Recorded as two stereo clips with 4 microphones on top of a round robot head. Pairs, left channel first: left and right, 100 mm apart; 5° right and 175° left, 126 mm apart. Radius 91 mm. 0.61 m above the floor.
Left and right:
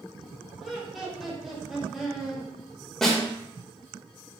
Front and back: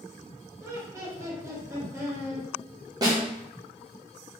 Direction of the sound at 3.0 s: 175° left.